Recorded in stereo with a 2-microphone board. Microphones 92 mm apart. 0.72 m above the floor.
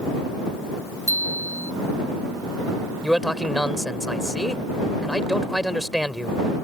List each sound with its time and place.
1.1 s a bicycle bell: 35° left (ahead or behind)
3.0 s a man speaking: 5° right (ahead or behind)